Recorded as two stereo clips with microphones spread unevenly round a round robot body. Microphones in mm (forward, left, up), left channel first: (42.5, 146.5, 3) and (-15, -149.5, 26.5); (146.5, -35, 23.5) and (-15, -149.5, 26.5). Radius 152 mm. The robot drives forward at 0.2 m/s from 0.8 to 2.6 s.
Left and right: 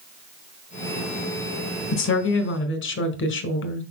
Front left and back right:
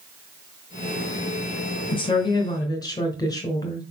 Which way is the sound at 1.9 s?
90° left.